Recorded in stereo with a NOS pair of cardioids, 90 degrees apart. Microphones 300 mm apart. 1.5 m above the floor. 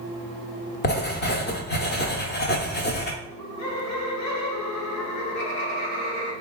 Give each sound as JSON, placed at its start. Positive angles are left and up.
{"t": 0.8, "sound": "writing", "azimuth_deg": 35, "distance_m": 0.8}
{"t": 3.2, "sound": "laughter", "azimuth_deg": 65, "distance_m": 1.3}